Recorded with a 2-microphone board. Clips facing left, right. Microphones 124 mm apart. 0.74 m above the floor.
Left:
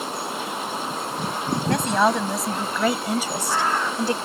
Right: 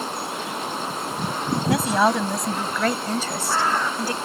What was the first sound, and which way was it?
A woman speaking, 5° right (ahead or behind).